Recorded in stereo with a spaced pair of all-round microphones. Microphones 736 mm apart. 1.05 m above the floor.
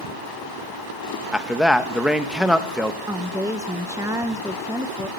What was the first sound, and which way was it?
A man speaking, centre (ahead or behind).